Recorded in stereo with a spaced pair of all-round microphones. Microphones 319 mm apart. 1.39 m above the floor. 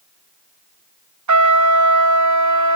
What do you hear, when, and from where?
1.3 s a trumpet: 65° right (ahead or behind), 0.5 m